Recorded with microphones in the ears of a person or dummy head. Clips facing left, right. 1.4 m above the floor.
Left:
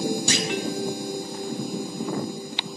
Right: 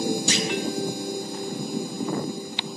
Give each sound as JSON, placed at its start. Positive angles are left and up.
{"t": 0.3, "sound": "a clunk", "side_deg": 45, "distance_m": 0.6}